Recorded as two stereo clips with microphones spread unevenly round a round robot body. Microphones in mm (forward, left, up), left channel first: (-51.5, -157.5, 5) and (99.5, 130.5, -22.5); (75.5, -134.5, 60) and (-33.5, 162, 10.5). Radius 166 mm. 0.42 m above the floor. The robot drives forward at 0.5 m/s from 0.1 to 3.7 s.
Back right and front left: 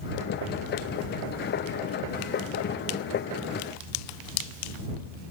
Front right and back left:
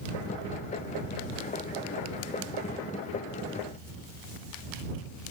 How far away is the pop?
No pop in this recording.